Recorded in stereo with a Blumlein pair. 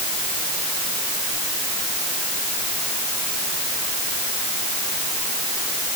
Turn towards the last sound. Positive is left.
No sound to turn to.